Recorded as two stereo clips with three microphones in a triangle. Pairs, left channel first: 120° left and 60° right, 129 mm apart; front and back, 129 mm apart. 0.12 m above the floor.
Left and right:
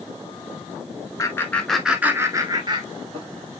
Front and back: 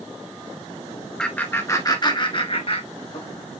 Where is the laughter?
80° left, 1.4 m; by 3.3 s 25° right, 2 m.